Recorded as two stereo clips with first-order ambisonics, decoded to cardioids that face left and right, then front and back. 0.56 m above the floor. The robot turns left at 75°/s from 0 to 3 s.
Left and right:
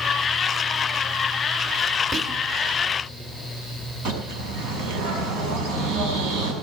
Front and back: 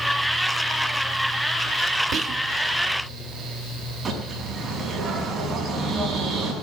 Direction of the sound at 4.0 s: 110° right.